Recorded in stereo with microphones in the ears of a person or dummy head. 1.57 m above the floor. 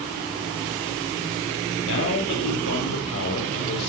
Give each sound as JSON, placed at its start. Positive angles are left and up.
{"t": 1.8, "sound": "a man speaking", "side_deg": 80, "distance_m": 3.0}